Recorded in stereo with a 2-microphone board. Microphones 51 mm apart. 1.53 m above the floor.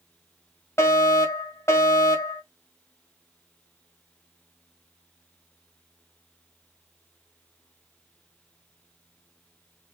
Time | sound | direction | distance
0.8 | a fire alarm | 65° left (ahead or behind) | 2.5 m